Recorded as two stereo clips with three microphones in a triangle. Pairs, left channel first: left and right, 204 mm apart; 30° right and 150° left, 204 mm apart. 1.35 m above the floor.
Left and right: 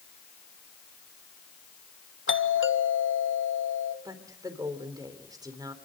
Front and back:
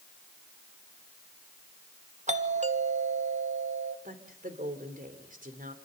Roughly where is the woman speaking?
Behind.